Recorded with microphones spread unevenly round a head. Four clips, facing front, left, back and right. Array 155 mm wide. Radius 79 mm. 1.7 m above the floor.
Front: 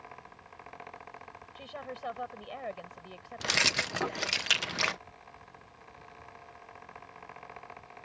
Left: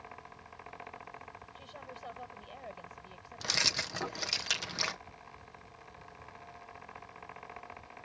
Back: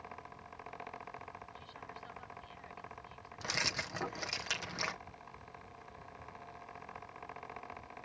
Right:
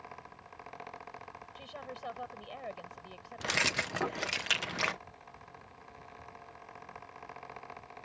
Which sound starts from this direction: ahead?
A woman speaking, at 1.6 s.